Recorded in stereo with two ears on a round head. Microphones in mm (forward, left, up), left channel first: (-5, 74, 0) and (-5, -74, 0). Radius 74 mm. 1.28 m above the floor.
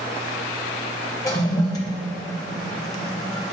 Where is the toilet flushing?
20° left (ahead or behind), 1.3 m.